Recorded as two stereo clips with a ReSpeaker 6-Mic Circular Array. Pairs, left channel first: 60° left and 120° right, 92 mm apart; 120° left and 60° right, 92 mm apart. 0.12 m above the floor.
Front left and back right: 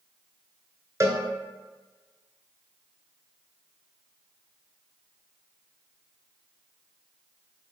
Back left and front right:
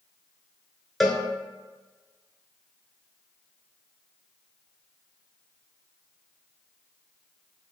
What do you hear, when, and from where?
1.0 s a cowbell: 150° right, 0.6 m